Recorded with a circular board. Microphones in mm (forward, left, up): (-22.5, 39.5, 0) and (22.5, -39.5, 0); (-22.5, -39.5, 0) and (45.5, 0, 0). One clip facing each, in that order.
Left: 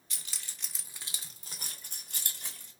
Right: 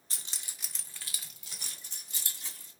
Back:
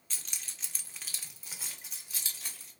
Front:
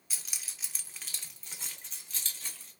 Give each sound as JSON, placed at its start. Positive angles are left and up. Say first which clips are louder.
{"t": 0.1, "sound": "keys jangling", "louder": "even, even", "azimuth_deg": -45, "distance_m": 0.6}